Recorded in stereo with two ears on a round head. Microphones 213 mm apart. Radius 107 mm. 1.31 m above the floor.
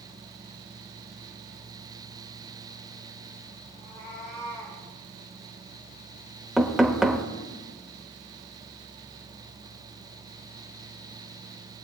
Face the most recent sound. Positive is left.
turn(degrees=0)  # may be behind; listen again after turning